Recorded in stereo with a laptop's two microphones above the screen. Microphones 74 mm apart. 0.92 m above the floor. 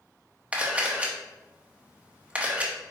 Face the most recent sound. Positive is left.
turn(degrees=-20)  # may be behind; listen again after turning